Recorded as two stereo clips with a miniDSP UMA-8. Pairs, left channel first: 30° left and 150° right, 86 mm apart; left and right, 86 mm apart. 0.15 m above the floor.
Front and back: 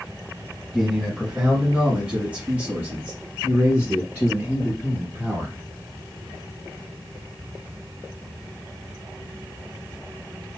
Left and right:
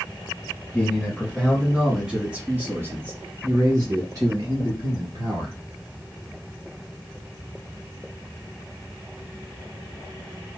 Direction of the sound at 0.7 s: 125° left.